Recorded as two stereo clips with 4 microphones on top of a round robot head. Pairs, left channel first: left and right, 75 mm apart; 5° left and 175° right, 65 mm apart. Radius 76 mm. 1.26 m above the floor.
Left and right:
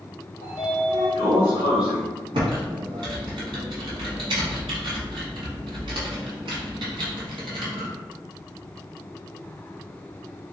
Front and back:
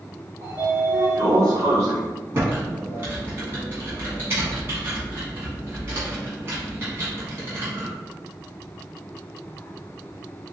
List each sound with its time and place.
0.4 s a sliding door: 170° left, 1.4 m
2.3 s typing on a keyboard: 120° right, 1.4 m